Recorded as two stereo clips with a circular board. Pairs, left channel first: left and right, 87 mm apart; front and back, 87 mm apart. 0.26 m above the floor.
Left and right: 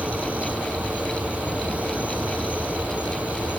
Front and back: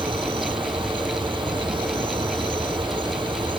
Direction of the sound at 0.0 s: 165° right.